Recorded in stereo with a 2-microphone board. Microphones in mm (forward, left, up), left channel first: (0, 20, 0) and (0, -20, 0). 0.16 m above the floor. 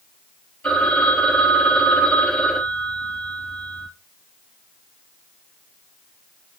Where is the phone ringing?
35° left (ahead or behind), 2.5 m.